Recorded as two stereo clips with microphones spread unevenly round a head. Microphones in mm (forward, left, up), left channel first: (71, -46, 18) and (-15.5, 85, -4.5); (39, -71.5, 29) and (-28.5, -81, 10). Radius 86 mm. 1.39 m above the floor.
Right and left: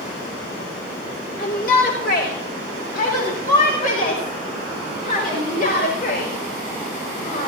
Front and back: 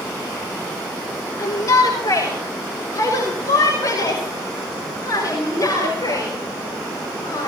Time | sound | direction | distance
1.4 | a shout | 25° right | 2.5 m